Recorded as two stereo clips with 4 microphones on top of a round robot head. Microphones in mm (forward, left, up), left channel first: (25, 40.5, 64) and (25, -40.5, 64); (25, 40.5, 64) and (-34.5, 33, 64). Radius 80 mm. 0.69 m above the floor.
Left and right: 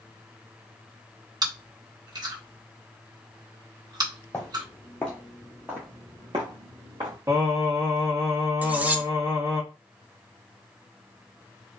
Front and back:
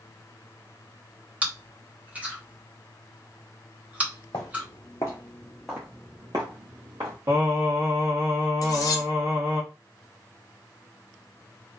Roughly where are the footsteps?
Ahead left.